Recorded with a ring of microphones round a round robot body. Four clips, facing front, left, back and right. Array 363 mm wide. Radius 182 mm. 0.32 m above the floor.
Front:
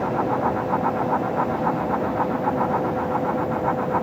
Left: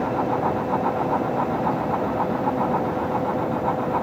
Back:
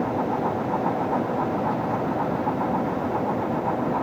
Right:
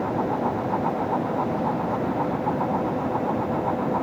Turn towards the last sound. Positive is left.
No sound to turn to.